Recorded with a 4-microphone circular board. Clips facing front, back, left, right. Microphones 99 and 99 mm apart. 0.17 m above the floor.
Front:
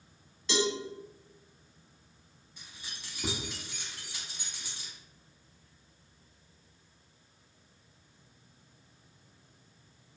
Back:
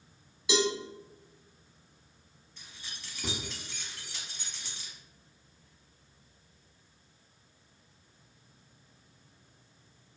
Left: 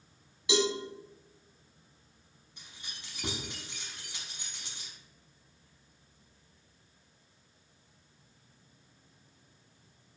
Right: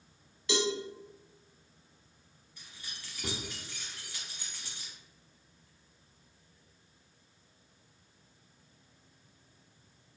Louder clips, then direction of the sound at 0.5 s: Back 2 dB, left 3 dB; 125° left.